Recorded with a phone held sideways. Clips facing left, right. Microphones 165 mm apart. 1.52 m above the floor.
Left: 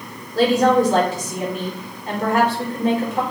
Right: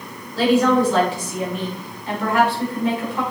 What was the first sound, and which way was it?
A woman speaking, 45° left (ahead or behind).